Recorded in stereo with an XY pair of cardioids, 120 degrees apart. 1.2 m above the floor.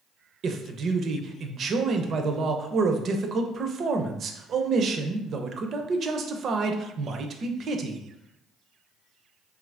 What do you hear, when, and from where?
0.4 s a man speaking: 45° right, 0.5 m